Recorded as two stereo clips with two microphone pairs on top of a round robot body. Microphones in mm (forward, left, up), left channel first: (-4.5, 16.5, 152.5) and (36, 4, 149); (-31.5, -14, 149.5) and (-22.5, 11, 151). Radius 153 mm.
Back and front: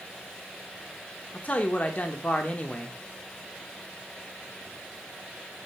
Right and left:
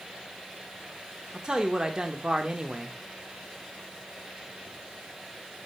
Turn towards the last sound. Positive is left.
turn(degrees=115)